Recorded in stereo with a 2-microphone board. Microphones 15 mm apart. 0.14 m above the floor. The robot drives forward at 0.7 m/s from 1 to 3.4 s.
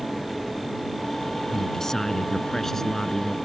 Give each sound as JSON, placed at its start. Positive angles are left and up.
{"t": 1.5, "sound": "a man speaking", "side_deg": 35}